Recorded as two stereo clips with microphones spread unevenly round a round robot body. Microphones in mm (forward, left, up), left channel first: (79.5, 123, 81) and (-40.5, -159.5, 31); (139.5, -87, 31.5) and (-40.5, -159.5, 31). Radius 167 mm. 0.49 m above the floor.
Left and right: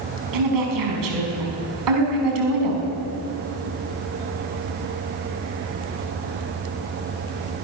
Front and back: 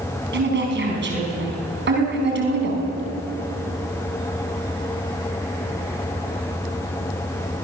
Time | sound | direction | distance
0.3 | a woman speaking | 130° right | 4.5 m